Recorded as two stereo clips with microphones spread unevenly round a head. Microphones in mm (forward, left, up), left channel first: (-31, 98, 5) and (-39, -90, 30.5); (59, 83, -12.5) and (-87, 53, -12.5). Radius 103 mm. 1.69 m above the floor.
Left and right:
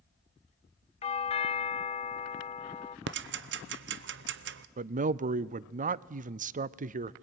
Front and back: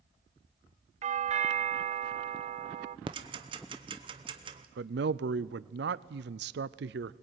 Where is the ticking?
105° right, 0.7 m.